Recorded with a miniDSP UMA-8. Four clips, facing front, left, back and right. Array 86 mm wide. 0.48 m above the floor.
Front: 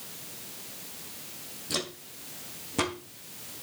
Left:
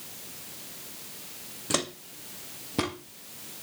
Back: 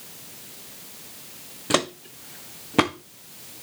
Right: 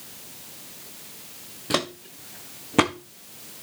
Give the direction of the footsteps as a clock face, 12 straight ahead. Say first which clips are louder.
Right 4 dB, back 12 dB; 5 o'clock.